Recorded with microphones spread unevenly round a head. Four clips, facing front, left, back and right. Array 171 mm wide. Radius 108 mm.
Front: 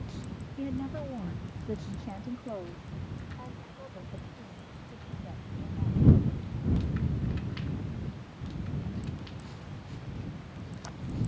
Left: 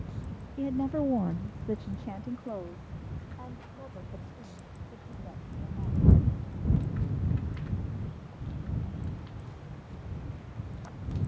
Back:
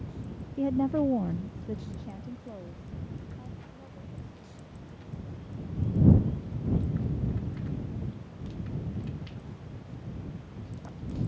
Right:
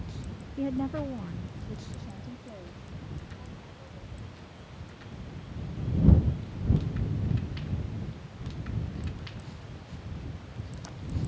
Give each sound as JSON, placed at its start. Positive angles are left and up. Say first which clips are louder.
{"t": 0.6, "sound": "a woman speaking", "louder": "left 2 dB, back 9 dB", "azimuth_deg": -165}